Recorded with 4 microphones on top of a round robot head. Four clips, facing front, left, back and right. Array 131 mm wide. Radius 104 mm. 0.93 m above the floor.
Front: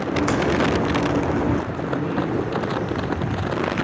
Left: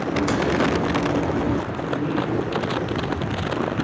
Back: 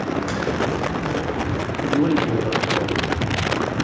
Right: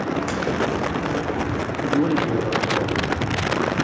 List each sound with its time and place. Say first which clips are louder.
0.1 s a crack: left 6 dB, front 7 dB; 30° left, 0.9 m
1.7 s a man speaking: right 4 dB, back 5 dB; 140° right, 2.5 m